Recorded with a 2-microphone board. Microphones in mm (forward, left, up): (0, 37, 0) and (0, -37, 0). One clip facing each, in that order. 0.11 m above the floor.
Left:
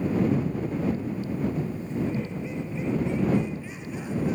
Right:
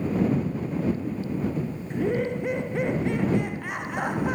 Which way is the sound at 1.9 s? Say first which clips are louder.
Right 6 dB; 65° right (ahead or behind).